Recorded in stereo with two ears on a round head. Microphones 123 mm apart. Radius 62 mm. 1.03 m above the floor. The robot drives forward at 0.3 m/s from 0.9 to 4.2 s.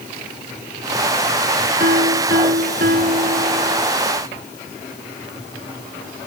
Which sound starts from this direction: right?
A piano, at 1.8 s.